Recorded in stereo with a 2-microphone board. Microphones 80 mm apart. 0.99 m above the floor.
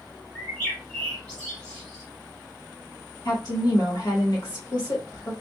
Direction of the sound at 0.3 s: 15° left (ahead or behind).